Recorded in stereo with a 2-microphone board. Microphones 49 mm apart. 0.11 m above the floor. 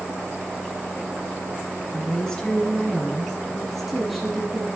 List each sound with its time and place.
1.9 s a woman speaking: 15° left (ahead or behind), 1.5 m; by 4.7 s centre (ahead or behind), 2.5 m